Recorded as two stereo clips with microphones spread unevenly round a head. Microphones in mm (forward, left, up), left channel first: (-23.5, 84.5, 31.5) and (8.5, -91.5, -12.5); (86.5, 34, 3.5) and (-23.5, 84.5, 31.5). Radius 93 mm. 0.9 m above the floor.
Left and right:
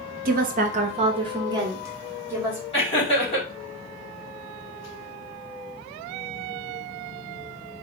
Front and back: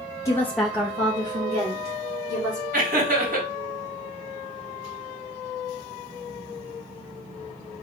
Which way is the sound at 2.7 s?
165° left.